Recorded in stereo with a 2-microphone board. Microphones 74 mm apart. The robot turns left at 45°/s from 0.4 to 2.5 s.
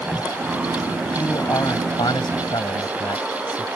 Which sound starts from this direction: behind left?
A man speaking, at 1.1 s.